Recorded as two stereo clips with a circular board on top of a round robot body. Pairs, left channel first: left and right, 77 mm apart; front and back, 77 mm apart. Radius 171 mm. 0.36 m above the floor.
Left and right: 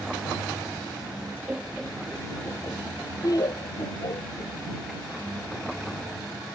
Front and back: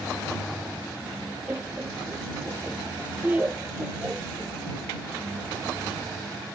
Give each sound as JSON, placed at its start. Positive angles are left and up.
{"t": 1.5, "sound": "laughter", "azimuth_deg": -140}